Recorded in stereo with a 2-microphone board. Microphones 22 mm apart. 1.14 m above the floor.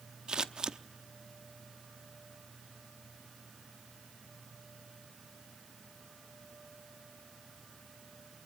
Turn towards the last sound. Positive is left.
turn(degrees=-40)  # may be behind; listen again after turning